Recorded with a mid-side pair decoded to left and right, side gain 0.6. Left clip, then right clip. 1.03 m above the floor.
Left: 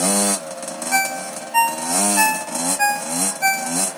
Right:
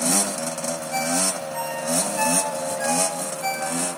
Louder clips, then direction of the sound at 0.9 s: Left 4 dB; 65° left.